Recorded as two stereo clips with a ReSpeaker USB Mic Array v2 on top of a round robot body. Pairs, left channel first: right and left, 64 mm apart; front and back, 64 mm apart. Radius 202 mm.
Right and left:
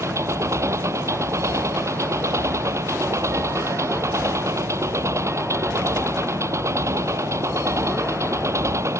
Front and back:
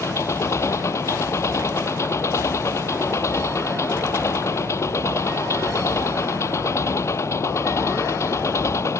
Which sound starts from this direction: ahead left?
An engine running, at 0.0 s.